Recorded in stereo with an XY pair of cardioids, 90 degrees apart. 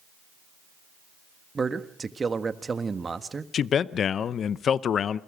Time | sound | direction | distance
1.6 | a man speaking | 35° right | 1.6 m
3.5 | a man speaking | 60° left | 0.7 m